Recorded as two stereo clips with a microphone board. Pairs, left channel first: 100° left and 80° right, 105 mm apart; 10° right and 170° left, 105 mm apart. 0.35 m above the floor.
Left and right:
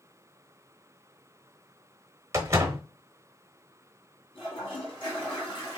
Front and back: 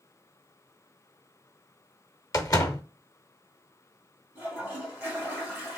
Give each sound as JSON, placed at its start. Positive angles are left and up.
{"t": 2.3, "sound": "a door slam", "azimuth_deg": -40, "distance_m": 0.7}
{"t": 4.3, "sound": "a toilet flushing", "azimuth_deg": 100, "distance_m": 2.5}